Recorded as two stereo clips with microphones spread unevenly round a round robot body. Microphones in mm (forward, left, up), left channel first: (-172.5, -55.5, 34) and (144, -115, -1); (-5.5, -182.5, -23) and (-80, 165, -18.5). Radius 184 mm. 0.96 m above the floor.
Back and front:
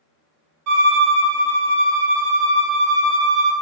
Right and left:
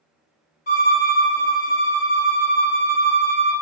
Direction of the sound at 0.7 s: 20° right.